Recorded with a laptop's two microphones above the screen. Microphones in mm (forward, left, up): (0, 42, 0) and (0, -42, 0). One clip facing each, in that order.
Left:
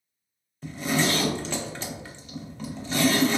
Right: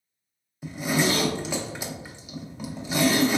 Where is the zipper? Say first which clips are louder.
Right 1 dB; 10° right (ahead or behind), 0.5 m.